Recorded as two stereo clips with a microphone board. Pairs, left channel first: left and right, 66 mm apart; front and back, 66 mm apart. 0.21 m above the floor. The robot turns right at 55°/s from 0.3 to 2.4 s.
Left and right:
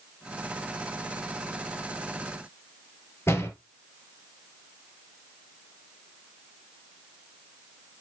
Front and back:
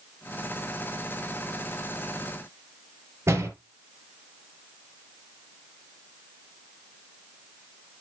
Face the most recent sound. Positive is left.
turn(degrees=135)